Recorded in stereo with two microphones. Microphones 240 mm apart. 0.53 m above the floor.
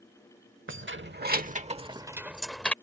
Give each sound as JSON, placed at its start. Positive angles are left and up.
{"t": 0.7, "sound": "keys jangling", "side_deg": -55}